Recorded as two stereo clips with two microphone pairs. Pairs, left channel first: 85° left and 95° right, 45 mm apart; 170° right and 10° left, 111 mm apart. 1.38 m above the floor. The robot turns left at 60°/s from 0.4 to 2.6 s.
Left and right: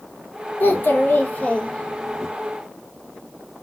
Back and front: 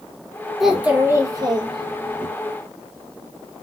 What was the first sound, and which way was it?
A child speaking, 100° left.